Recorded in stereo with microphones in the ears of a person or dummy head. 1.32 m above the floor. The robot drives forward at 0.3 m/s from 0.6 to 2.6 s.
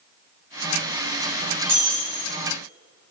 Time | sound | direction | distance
1.6 | breaking glass | 50° right (ahead or behind) | 5.5 m